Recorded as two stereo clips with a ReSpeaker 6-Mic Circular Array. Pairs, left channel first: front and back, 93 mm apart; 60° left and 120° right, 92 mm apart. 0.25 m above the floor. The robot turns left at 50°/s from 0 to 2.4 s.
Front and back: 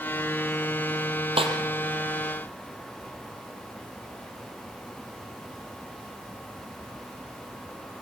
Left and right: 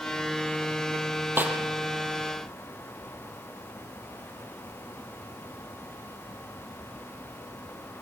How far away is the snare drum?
About 3.5 m.